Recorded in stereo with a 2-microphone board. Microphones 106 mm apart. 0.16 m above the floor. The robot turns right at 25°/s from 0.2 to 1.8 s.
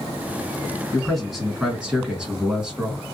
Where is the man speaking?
5° left (ahead or behind), 1.7 m; by 3.0 s 10° right (ahead or behind), 1.7 m.